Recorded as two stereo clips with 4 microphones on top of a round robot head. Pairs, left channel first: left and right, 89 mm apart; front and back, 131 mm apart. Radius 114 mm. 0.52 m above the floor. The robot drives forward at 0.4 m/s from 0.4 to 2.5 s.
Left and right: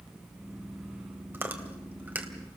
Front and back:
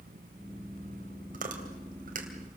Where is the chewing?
160° right, 2.5 m.